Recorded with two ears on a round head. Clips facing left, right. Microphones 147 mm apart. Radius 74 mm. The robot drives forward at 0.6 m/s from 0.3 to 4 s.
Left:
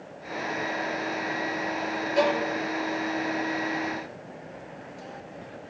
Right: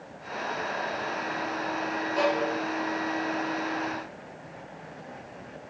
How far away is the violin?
About 8.5 m.